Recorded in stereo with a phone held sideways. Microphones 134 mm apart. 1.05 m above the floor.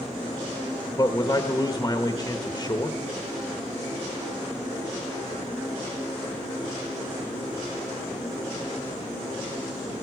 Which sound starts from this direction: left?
A man speaking, at 1.0 s.